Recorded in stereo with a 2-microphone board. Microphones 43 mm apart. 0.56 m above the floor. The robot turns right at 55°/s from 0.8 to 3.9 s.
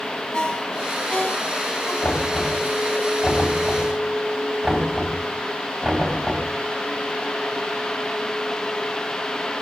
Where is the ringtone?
30° left (ahead or behind), 3 m; by 1.9 s 80° left, 3 m.